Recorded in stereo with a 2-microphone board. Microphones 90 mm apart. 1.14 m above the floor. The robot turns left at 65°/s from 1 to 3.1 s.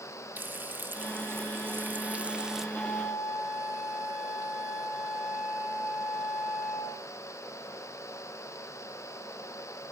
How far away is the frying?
About 0.7 m.